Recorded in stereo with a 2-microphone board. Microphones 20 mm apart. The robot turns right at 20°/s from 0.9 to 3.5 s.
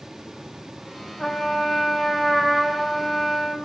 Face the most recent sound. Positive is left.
turn(degrees=-175)